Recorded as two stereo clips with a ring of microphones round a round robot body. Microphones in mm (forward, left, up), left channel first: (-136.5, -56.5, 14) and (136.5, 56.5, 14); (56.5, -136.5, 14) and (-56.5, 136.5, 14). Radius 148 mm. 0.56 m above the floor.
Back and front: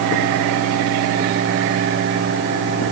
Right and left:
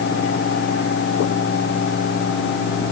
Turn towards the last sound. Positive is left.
No sound to turn to.